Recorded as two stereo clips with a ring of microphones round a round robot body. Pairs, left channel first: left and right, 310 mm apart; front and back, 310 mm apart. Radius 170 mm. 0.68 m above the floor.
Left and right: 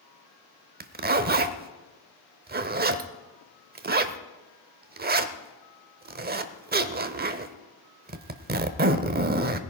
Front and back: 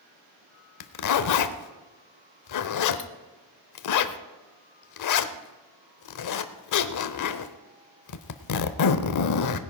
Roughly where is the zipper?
Ahead right.